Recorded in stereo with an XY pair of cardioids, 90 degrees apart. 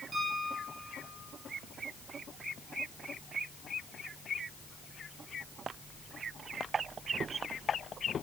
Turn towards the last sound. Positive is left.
turn(degrees=-35)